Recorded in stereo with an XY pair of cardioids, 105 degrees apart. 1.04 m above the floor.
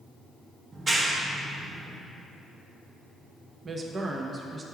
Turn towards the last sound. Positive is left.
turn(degrees=-35)